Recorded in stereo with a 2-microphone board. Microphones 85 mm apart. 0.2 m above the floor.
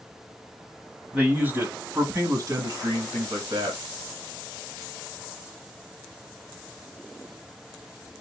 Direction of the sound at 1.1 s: 15° right (ahead or behind).